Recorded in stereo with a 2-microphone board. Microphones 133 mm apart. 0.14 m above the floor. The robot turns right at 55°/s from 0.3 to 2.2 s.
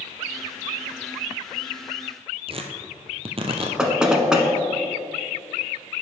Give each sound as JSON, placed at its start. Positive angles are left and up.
{"t": 2.5, "sound": "tearing paper", "side_deg": -45, "distance_m": 1.2}
{"t": 3.8, "sound": "knocking", "side_deg": -5, "distance_m": 1.1}